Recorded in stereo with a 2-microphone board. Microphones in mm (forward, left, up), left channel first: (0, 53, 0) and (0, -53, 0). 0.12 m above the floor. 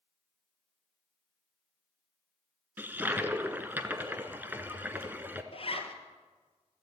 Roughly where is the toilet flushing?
Centre.